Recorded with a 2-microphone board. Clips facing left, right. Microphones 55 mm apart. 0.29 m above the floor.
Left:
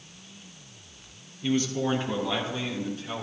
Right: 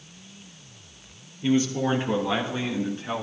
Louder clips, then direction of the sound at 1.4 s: Right 3 dB; 20° right (ahead or behind).